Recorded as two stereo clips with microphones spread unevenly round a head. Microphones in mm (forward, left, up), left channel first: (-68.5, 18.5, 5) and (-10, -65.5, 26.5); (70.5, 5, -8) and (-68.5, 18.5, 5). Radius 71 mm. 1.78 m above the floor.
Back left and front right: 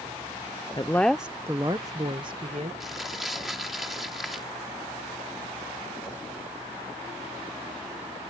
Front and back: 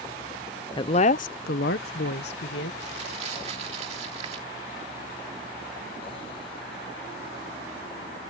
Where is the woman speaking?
55° left; by 2.7 s 5° right.